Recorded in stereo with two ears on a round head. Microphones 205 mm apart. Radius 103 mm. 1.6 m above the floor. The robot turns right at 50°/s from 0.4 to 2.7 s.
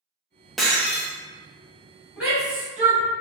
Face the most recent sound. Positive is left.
turn(degrees=-10)  # may be behind; listen again after turning